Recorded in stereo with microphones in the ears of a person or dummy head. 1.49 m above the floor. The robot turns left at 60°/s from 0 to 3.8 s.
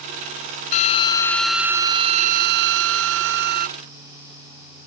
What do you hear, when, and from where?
0.7 s a drill: 40° left; by 3.7 s 135° right